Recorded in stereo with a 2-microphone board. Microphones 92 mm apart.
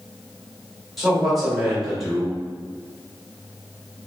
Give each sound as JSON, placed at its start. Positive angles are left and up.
{"t": 1.0, "sound": "a man speaking", "side_deg": 0, "distance_m": 1.4}